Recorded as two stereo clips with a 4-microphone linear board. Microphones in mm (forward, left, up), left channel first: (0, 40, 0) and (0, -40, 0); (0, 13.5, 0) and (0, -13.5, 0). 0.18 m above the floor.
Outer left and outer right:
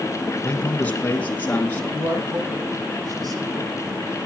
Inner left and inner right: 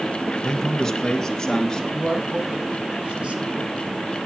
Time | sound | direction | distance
0.4 | a man speaking | 15° left (ahead or behind) | 1.3 m
1.9 | a man speaking | 55° right (ahead or behind) | 9 m